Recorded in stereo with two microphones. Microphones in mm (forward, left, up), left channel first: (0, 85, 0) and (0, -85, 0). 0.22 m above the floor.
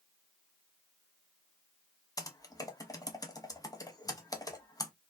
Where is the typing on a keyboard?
20° left (ahead or behind), 0.5 m.